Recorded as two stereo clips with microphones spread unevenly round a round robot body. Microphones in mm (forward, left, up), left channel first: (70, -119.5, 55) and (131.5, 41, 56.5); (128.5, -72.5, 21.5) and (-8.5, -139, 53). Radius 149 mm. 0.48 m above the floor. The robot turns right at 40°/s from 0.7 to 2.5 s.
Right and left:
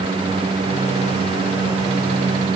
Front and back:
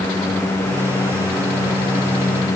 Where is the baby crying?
No baby crying in this recording.